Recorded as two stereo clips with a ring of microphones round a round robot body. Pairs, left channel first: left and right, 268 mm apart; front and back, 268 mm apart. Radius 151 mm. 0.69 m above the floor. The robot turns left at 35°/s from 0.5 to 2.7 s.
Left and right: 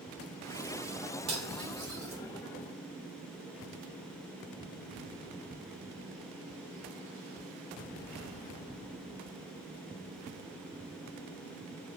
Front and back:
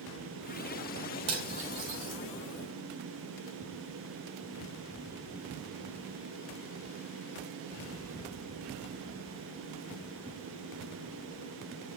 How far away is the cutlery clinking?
About 1.2 m.